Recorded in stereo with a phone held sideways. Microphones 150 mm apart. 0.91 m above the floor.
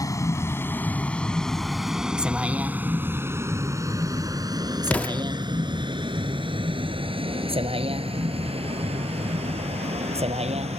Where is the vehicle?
25° left (ahead or behind); by 10.8 s 50° right (ahead or behind).